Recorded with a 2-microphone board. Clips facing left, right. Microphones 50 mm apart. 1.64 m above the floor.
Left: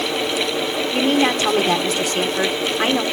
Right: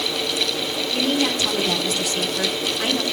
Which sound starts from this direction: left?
A woman speaking, at 0.9 s.